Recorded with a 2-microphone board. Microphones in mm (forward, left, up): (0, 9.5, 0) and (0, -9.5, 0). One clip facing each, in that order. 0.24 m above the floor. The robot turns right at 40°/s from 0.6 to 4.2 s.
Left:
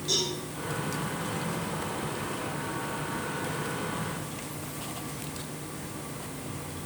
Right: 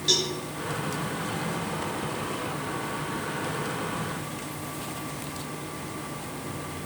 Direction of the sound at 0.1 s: 45° right (ahead or behind).